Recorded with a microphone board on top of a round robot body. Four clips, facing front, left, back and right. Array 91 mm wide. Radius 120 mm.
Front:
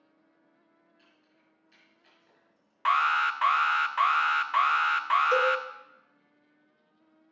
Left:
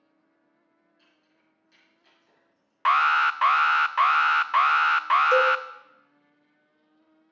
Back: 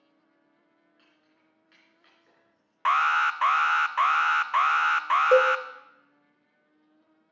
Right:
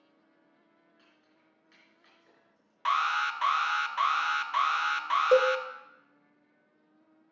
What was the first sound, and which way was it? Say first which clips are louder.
Keys jangling: right 1 dB, even; 155° right.